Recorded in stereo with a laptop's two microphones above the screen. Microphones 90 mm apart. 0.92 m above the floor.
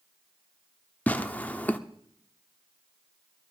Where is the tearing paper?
15° left (ahead or behind), 0.7 m.